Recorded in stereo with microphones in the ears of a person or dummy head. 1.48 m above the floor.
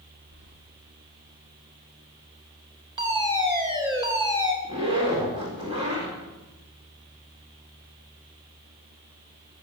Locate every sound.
0.3 s keys jangling: 65° right (ahead or behind), 2.5 m
3.0 s a fire alarm: 25° right (ahead or behind), 3.5 m
4.6 s a zipper: 30° right (ahead or behind), 4.5 m